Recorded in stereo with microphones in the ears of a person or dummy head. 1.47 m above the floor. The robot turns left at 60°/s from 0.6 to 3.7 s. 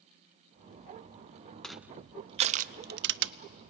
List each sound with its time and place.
1.6 s crushing: centre (ahead or behind), 0.6 m; by 3.3 s 55° right (ahead or behind), 0.6 m